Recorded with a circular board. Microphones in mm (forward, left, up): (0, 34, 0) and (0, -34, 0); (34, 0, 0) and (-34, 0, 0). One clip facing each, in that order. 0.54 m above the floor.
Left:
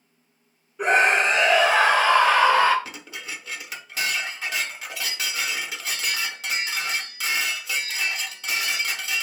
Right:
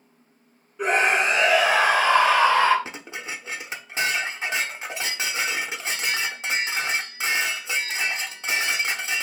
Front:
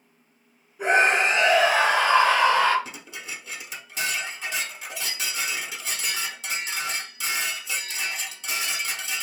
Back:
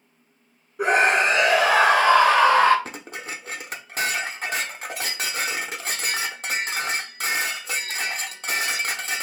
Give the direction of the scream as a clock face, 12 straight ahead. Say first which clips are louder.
Left 2 dB, back 1 dB; 6 o'clock.